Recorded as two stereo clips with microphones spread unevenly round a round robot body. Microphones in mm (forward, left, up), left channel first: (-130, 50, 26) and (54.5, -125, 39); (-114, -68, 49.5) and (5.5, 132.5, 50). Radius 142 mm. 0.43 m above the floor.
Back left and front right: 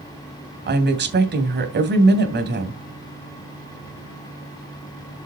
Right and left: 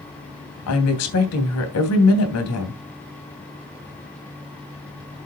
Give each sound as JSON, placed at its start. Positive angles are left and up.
{"t": 0.7, "sound": "a woman speaking", "azimuth_deg": -95, "distance_m": 2.5}